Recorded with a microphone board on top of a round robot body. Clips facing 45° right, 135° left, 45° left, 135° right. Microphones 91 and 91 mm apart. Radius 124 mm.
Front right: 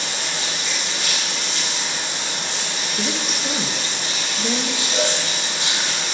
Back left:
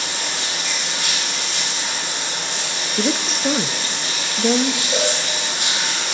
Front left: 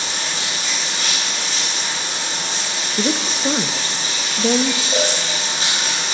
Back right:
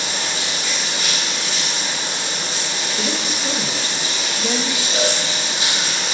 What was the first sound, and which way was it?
Running water, 100° left.